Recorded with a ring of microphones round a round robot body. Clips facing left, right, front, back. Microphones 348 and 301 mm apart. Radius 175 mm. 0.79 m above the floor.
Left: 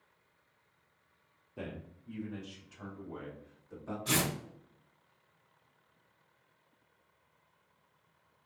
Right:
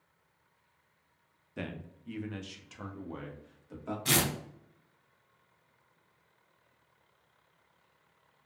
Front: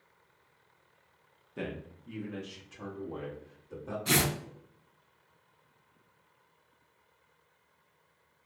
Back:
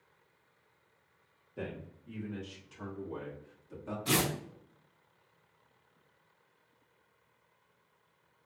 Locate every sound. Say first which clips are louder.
1.6 s a man speaking: right 2 dB, front 3 dB; 55° right, 0.8 m; by 4.0 s 125° right, 1.6 m
4.0 s tearing paper: right 2 dB, front 1 dB; 95° right, 1.8 m